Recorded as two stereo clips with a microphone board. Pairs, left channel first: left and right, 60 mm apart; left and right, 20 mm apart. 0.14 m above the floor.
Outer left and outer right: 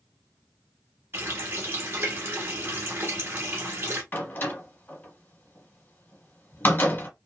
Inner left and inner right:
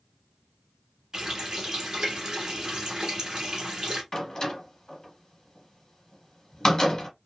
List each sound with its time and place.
1.1 s a running tap: 40° right (ahead or behind), 1.0 m
4.1 s a door slam: 30° left (ahead or behind), 1.3 m